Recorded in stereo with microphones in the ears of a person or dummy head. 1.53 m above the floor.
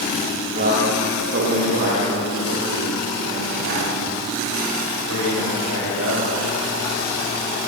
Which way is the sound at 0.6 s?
55° right (ahead or behind).